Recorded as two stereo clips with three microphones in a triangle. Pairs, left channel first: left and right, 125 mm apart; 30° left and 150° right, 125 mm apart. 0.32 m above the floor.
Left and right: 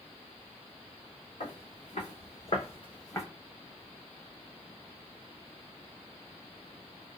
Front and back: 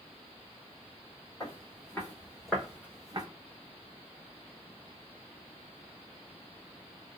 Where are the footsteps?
90° left, 1.7 m; by 3.2 s 155° left, 0.8 m.